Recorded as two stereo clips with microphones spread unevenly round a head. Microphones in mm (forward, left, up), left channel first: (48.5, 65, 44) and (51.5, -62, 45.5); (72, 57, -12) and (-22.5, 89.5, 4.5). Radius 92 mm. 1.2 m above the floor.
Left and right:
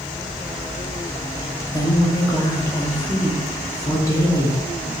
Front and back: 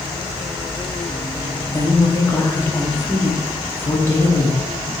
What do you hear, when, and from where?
1.7 s a woman speaking: 35° left, 0.9 m